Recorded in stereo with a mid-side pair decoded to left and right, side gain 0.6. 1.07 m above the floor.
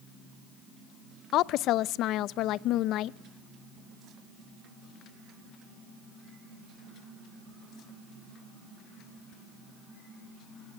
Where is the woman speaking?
60° left, 0.5 m.